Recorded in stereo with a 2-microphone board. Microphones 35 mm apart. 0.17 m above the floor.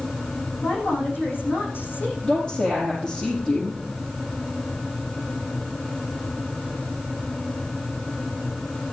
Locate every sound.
0.6 s a woman speaking: 80° left, 9 m
2.2 s a woman speaking: 30° left (ahead or behind), 5.5 m